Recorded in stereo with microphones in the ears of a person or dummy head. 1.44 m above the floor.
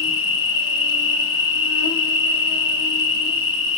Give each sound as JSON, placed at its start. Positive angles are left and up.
{"t": 0.0, "sound": "an insect", "side_deg": 25, "distance_m": 2.5}